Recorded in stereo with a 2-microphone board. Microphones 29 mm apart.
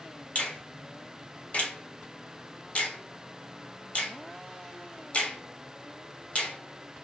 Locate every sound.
0.3 s a finger snap: 55° left (ahead or behind), 0.7 m